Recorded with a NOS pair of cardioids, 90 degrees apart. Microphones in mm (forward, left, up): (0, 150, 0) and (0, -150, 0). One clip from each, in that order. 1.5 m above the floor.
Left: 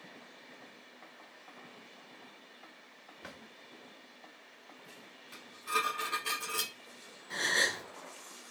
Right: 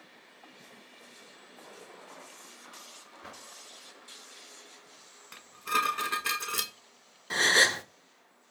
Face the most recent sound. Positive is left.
turn(degrees=-40)